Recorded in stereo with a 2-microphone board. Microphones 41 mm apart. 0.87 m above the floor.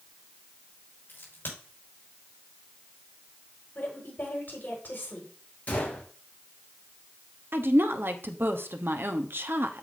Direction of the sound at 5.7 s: 35° left (ahead or behind).